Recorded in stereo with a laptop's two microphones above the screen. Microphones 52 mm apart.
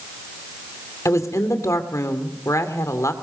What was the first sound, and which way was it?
A woman speaking, 80° left.